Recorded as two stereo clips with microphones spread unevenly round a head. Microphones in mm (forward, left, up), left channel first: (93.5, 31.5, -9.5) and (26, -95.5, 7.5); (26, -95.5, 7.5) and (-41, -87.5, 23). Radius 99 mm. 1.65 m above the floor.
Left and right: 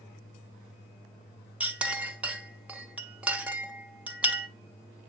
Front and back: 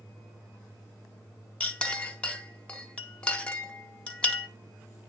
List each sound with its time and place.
1.6 s a clink: 80° right, 0.6 m